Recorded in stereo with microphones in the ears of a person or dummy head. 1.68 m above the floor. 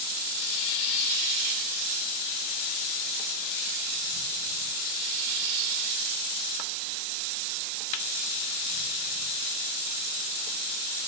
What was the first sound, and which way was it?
Only background noise.